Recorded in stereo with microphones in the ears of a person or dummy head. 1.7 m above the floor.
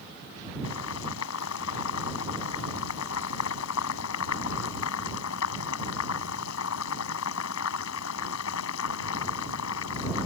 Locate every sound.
0.6 s boiling: 80° left